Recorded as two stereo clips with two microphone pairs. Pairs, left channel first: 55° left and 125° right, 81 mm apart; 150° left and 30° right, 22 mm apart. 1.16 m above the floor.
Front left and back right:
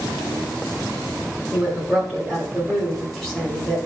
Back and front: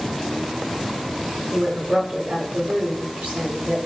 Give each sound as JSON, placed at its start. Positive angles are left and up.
{"t": 1.5, "sound": "a woman speaking", "azimuth_deg": -30, "distance_m": 3.0}